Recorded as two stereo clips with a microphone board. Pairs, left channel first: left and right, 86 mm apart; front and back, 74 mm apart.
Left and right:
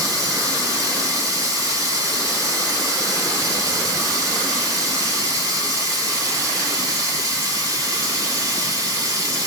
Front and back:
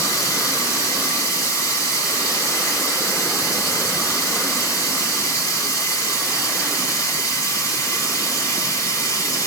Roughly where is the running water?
Ahead right.